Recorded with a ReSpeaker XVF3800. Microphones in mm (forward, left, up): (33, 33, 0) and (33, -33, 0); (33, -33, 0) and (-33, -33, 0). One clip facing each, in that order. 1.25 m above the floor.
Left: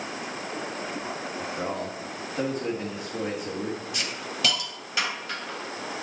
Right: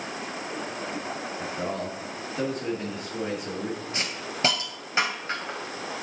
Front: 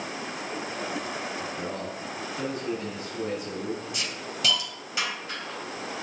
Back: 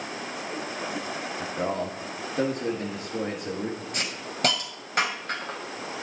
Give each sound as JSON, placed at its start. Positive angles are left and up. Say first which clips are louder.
{"t": 1.4, "sound": "a man speaking", "louder": "even, back 4 dB", "azimuth_deg": 170, "distance_m": 2.5}
{"t": 3.9, "sound": "a hiss", "louder": "even, back 1 dB", "azimuth_deg": -145, "distance_m": 2.5}